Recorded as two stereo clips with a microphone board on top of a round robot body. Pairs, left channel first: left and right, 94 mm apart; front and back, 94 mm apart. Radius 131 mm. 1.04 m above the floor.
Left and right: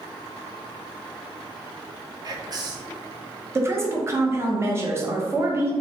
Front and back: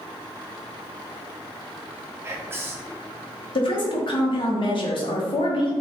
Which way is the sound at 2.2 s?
120° right.